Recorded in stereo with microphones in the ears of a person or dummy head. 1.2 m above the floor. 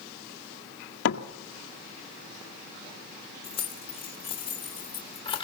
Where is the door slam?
85° left, 1.8 m.